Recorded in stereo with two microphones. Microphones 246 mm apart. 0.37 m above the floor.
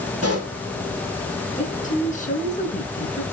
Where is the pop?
75° right (ahead or behind), 2.5 m.